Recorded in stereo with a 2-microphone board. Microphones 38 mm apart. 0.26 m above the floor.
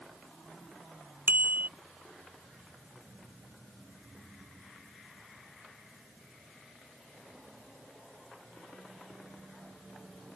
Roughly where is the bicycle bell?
Right.